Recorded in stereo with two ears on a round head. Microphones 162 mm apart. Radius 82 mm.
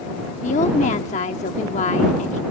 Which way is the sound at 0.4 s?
40° left (ahead or behind).